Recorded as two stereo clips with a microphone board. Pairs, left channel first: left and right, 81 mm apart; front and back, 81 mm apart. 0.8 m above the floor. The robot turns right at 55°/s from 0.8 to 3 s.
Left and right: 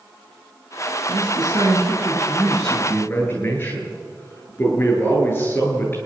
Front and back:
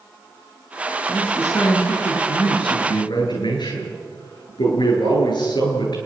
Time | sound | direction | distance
1.1 | a man speaking | 75° right | 10 m